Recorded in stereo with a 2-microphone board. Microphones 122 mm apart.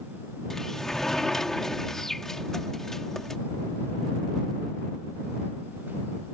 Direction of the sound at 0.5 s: 5° left (ahead or behind).